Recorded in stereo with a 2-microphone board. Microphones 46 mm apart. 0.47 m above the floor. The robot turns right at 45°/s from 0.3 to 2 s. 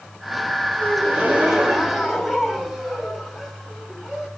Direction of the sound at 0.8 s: 55° right.